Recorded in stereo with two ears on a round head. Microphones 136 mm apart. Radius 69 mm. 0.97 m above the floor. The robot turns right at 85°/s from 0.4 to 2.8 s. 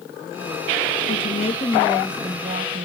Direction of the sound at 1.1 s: 100° left.